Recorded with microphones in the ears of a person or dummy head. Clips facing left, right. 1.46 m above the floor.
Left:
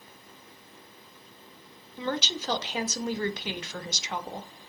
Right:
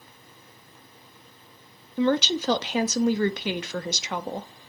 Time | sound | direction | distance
2.0 | a woman speaking | 50° right (ahead or behind) | 0.6 m